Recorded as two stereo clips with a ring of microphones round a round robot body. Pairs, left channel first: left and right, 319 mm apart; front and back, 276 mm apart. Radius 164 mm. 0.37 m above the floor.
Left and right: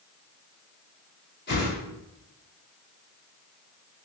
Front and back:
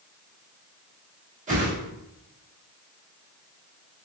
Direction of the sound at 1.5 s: 130° left.